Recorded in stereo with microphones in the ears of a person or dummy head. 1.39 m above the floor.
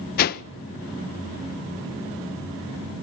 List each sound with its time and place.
0.2 s a whoosh: 50° left (ahead or behind), 0.5 m